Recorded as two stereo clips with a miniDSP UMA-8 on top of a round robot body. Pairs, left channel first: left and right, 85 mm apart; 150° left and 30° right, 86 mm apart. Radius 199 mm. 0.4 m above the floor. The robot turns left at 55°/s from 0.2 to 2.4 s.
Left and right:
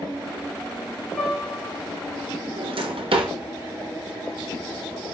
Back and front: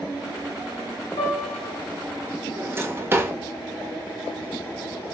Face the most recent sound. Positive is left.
turn(degrees=-95)